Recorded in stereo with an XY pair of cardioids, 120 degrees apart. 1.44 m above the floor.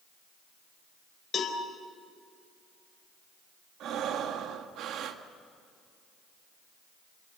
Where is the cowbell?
35° left, 4.5 m.